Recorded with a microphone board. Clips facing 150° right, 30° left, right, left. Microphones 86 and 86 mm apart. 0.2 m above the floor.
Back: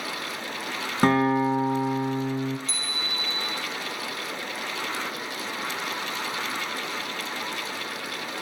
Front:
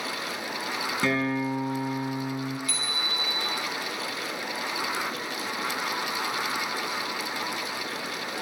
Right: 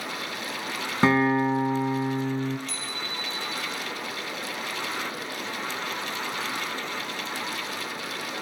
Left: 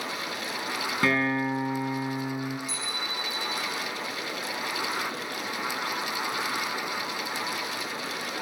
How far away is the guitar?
About 1.4 m.